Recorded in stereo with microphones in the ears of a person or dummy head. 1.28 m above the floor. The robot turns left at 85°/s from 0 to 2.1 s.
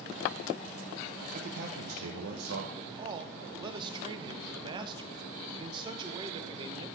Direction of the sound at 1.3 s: 40° right.